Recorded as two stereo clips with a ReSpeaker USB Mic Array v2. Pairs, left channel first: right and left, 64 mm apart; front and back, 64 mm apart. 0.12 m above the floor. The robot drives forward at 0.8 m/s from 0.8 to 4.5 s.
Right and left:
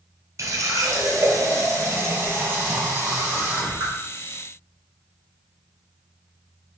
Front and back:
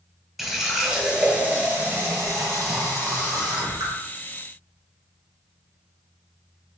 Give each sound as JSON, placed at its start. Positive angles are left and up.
{"t": 0.4, "sound": "a running tap", "azimuth_deg": 90, "distance_m": 1.2}